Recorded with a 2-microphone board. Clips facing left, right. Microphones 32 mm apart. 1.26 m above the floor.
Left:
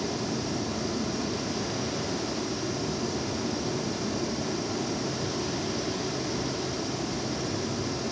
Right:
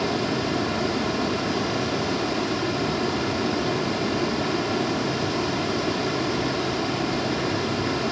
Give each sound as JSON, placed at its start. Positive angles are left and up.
{"t": 0.0, "sound": "running water", "side_deg": -55, "distance_m": 3.0}